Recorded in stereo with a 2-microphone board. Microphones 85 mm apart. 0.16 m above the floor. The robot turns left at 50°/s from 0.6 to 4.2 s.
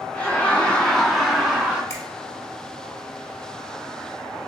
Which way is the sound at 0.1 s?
25° left.